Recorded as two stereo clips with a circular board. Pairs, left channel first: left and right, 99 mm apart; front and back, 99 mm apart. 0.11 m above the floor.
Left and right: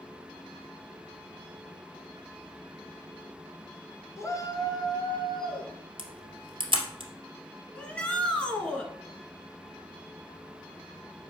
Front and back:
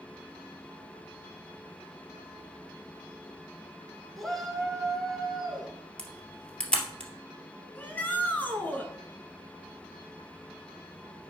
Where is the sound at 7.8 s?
35° left, 1.7 m.